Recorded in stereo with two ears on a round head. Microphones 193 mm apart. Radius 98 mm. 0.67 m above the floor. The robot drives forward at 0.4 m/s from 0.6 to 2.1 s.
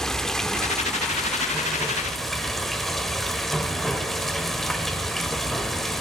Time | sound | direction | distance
0.0 | running water | 5° left (ahead or behind) | 0.7 m